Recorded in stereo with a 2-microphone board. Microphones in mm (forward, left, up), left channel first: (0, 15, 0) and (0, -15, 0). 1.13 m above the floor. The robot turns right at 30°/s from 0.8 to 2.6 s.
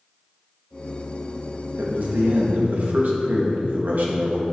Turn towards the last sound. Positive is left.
turn(degrees=-65)  # may be behind; listen again after turning